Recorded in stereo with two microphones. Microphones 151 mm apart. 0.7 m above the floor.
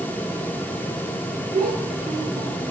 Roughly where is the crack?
I don't hear a crack.